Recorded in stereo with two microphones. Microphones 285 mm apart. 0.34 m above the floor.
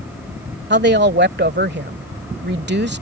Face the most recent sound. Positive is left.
turn(degrees=-35)  # may be behind; listen again after turning